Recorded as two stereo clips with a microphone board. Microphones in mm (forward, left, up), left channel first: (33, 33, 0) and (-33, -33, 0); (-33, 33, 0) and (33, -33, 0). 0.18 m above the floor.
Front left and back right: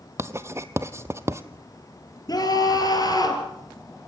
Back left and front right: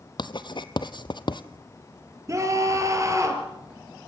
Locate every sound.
0.2 s writing: 165° left, 0.9 m
2.3 s a scream: 5° left, 4.5 m